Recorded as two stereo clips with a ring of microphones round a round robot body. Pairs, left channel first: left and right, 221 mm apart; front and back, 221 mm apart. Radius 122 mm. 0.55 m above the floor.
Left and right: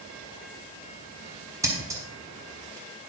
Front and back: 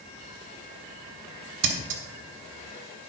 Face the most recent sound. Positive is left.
turn(degrees=-165)